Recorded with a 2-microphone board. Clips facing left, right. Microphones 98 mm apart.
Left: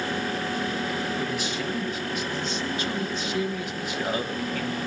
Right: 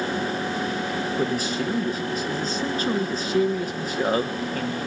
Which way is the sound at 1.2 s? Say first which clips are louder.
Right 4 dB; 40° right (ahead or behind).